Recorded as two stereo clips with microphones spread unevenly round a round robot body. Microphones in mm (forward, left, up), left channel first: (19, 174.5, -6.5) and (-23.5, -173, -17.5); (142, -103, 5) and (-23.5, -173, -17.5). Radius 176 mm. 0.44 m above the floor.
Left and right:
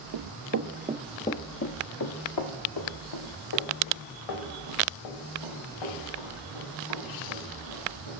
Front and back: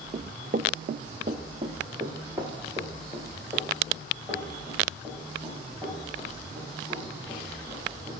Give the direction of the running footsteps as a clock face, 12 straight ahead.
3 o'clock.